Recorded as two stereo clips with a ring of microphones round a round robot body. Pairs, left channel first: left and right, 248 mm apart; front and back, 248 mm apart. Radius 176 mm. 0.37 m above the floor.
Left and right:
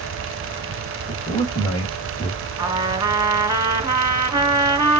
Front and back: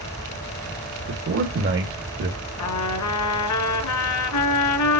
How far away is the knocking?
No knocking in this recording.